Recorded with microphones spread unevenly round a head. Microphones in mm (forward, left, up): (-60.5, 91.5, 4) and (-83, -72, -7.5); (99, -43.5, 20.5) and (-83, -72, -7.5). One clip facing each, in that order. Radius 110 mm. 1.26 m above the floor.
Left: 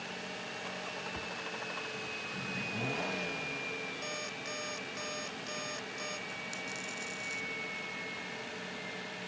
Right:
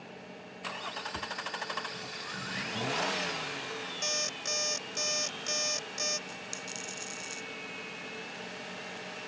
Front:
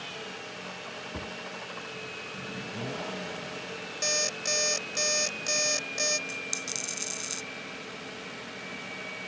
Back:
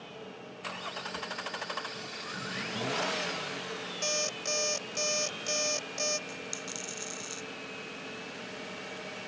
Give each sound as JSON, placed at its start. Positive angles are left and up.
{"t": 1.1, "sound": "a cupboard door", "azimuth_deg": -30}
{"t": 4.0, "sound": "an alarm clock", "azimuth_deg": -65}
{"t": 6.3, "sound": "a dropped coin", "azimuth_deg": -35}